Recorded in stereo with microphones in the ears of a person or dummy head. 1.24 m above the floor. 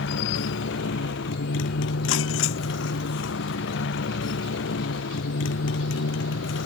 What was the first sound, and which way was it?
A motorcycle, 70° left (ahead or behind).